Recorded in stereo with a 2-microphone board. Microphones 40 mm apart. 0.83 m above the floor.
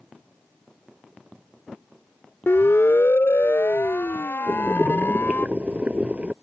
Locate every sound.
2.5 s a siren: 75° left (ahead or behind); by 5.5 s 55° left (ahead or behind)
4.5 s boiling: 30° right (ahead or behind)